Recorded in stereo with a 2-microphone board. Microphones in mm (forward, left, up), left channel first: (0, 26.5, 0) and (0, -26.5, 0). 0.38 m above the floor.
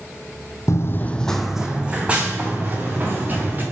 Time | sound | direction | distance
0.7 | running footsteps | 60° left (ahead or behind) | 0.7 m